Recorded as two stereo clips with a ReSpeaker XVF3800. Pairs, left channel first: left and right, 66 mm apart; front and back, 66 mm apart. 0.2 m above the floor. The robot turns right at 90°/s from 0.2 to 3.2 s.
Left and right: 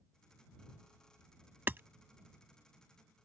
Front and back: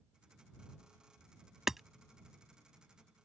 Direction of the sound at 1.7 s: 105° right.